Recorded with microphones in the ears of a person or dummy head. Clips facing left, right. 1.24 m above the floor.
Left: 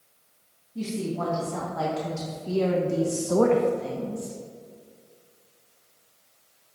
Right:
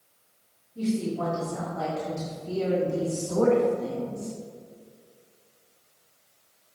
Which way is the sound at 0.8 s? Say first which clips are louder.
Right 2 dB; 65° left (ahead or behind).